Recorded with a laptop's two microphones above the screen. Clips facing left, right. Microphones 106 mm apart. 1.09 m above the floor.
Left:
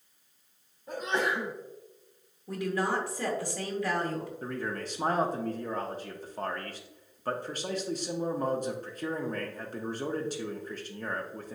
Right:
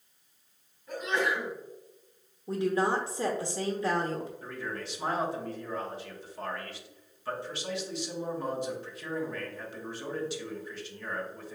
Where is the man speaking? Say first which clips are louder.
Left 3 dB; 45° left (ahead or behind), 0.8 m.